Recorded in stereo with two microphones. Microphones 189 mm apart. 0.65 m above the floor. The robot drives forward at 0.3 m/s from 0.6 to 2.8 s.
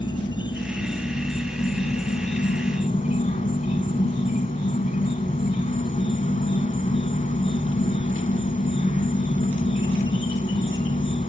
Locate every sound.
0.0 s an insect: 25° left (ahead or behind), 1.1 m; by 11.3 s 45° left (ahead or behind), 0.7 m